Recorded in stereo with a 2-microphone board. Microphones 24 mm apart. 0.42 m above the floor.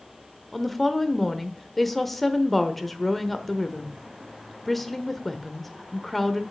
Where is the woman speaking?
10° left (ahead or behind), 1.0 m.